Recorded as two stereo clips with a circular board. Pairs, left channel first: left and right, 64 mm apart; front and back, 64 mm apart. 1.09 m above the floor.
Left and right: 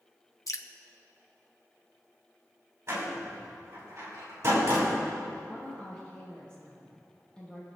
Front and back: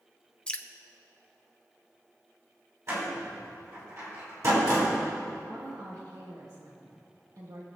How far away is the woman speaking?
About 1.9 m.